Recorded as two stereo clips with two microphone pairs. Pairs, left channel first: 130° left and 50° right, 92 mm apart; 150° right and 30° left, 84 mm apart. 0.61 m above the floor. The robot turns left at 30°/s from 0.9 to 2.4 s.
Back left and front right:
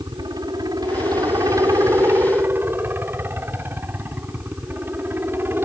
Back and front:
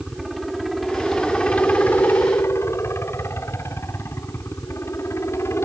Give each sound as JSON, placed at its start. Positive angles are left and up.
{"t": 0.0, "sound": "a helicopter", "azimuth_deg": -65}